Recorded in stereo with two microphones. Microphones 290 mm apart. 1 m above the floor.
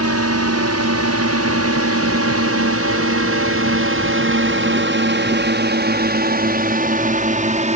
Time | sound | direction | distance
0.0 | a drone | 60° right (ahead or behind) | ?